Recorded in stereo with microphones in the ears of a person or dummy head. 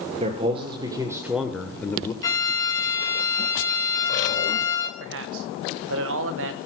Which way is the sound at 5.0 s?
65° right (ahead or behind).